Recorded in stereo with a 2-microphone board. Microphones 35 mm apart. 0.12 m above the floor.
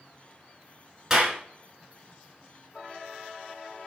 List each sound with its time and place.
1.1 s a clap: 15° right (ahead or behind), 1.0 m